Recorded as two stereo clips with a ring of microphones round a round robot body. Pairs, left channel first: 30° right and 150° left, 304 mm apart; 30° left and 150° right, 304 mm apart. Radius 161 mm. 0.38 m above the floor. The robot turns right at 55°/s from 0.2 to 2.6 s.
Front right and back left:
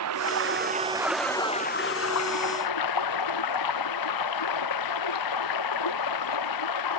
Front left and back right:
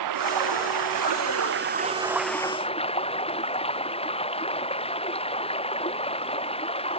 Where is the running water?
175° right; by 7.0 s 40° right.